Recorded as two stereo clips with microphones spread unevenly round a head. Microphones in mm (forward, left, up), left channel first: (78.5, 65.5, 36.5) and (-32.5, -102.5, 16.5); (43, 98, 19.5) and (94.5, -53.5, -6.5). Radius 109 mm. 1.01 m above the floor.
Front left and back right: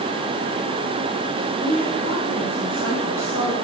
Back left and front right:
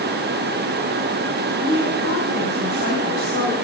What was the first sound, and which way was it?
A woman speaking, 90° left.